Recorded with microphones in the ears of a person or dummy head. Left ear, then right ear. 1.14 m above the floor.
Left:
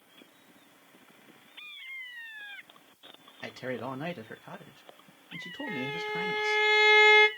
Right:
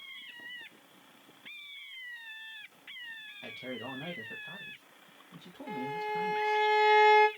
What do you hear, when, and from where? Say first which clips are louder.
3.4 s a man speaking: left 6 dB; 75° left (ahead or behind), 0.6 m
5.7 s a violin: even; 20° left (ahead or behind), 0.7 m